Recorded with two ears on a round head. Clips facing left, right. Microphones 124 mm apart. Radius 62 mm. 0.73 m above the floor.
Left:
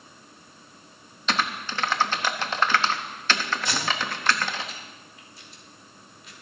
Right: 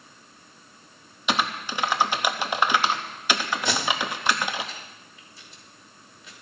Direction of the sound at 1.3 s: 10° right (ahead or behind).